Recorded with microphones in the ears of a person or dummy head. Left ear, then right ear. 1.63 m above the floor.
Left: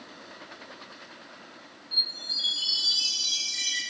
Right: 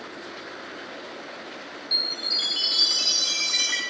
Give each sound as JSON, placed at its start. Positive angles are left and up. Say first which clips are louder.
{"t": 1.9, "sound": "a chime", "louder": "right 3 dB", "side_deg": -65, "distance_m": 3.5}